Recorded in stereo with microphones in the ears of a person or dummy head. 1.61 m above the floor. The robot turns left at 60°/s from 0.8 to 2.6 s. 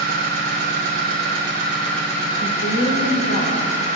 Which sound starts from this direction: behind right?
An engine running, at 0.0 s.